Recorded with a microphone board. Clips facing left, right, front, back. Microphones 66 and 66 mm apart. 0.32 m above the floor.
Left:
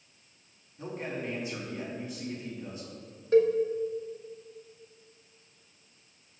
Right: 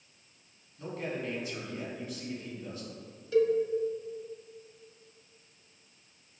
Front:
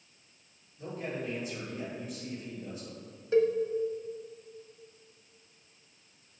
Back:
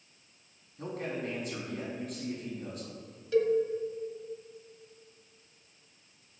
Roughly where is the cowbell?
Ahead left.